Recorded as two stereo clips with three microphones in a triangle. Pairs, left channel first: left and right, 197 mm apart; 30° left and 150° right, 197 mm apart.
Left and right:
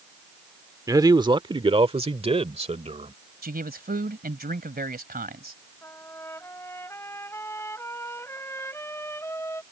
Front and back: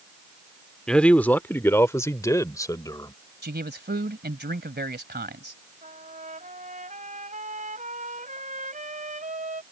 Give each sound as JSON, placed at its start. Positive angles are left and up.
{"t": 0.9, "sound": "a man speaking", "azimuth_deg": -50}
{"t": 3.4, "sound": "a man speaking", "azimuth_deg": -125}
{"t": 5.8, "sound": "a trumpet", "azimuth_deg": 165}